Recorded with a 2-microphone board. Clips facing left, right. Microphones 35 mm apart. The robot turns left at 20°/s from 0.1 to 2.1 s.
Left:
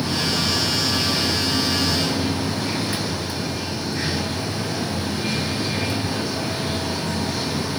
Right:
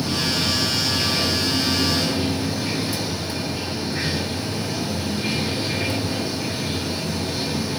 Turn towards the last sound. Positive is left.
turn(degrees=-160)